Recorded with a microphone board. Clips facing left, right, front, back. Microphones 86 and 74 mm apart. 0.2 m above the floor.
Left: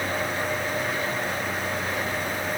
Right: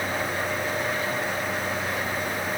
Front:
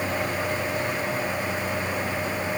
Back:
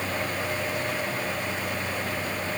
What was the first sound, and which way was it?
Only background noise.